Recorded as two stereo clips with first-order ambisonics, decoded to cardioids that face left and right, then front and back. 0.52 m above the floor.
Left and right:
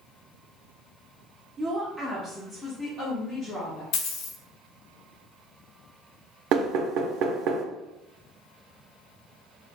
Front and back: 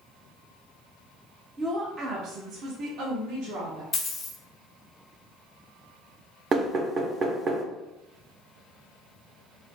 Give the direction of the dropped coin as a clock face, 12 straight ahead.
10 o'clock.